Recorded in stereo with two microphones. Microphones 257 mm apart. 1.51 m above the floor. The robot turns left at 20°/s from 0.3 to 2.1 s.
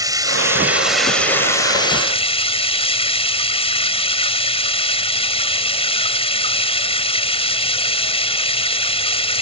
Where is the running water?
165° right; by 9.4 s 160° left.